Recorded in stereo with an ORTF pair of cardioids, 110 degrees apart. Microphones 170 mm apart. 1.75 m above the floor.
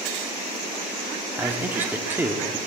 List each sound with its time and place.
1.4 s a man speaking: 10° right, 1.0 m